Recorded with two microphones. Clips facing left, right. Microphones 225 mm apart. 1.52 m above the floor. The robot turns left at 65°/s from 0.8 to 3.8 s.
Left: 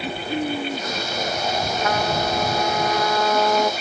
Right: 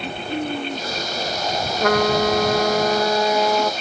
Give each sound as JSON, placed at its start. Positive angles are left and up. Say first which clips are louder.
{"t": 1.8, "sound": "a trumpet", "louder": "right 9 dB", "azimuth_deg": -65}